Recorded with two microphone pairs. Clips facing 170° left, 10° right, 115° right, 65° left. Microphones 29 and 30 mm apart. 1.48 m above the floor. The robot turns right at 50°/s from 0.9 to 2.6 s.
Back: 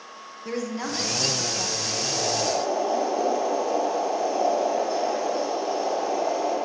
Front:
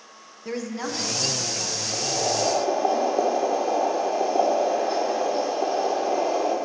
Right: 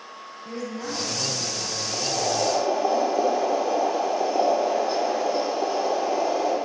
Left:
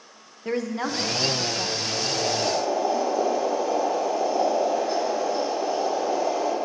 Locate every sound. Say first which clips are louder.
0.5 s a woman speaking: even, left 6 dB; 80° left, 1.4 m; by 1.8 s 125° left, 1.4 m
1.9 s boiling: front 3 dB, right 2 dB; 75° right, 3 m; by 6.5 s 40° right, 3 m